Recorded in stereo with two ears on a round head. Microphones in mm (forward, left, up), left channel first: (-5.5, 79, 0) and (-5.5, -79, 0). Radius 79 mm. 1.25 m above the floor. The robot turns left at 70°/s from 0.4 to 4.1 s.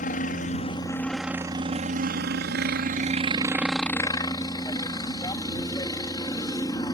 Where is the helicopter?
55° left; by 7.0 s 155° left.